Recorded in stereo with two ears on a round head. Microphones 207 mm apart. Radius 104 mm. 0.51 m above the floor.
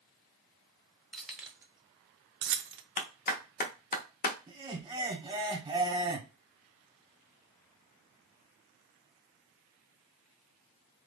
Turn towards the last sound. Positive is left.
turn(degrees=-20)  # may be behind; listen again after turning